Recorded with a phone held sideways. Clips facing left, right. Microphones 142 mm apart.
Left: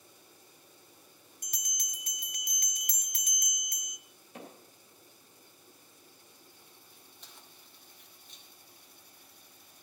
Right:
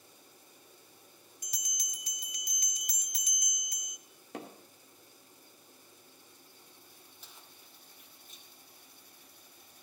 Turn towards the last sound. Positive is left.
turn(degrees=-5)  # may be behind; listen again after turning